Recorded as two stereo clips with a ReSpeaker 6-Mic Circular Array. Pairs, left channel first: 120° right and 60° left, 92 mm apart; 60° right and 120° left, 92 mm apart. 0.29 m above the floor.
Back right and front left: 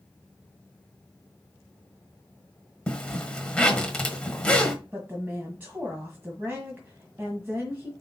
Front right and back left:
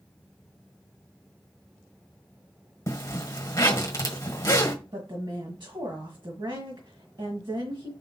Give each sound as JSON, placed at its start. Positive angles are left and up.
{"t": 2.9, "sound": "a zipper", "azimuth_deg": -45, "distance_m": 1.3}
{"t": 4.9, "sound": "a woman speaking", "azimuth_deg": 125, "distance_m": 1.7}